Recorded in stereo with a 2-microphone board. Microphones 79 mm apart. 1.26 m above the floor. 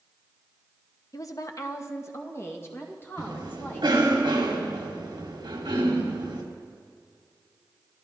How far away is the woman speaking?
About 0.9 m.